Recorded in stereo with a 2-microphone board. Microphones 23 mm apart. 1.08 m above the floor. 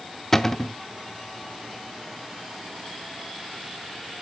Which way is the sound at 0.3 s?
15° left (ahead or behind).